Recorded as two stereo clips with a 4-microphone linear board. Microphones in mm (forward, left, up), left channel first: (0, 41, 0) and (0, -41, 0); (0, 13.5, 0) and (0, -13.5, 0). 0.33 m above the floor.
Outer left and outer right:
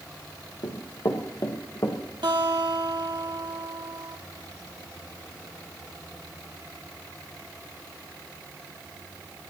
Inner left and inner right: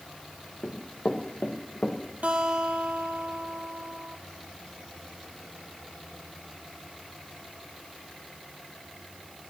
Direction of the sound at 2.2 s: 75° right (ahead or behind).